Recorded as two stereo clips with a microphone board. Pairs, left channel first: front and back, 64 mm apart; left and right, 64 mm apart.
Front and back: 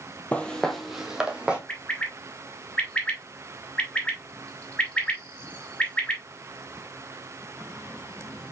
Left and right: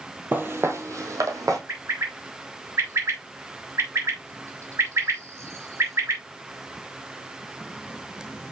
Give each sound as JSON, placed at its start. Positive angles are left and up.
{"t": 0.3, "sound": "footsteps", "azimuth_deg": -55, "distance_m": 0.8}
{"t": 1.7, "sound": "a bird", "azimuth_deg": -65, "distance_m": 1.3}